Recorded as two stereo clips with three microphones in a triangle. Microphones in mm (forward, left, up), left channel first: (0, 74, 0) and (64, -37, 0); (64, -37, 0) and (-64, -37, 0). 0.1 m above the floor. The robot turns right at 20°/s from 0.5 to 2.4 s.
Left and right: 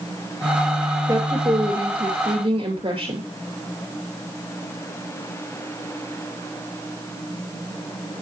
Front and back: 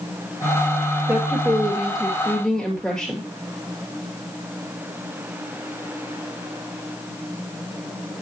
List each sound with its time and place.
1.1 s a woman speaking: 110° right, 2.5 m; by 3.2 s 85° right, 2.5 m